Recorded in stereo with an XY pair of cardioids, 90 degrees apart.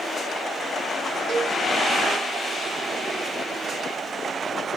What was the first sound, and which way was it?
A cowbell, 65° right.